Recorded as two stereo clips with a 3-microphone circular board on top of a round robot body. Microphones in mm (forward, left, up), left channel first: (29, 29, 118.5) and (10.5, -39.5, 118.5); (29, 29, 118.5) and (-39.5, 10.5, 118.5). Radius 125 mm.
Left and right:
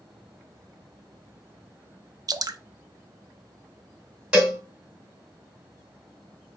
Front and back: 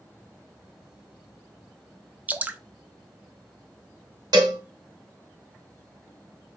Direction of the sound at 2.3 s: 100° right.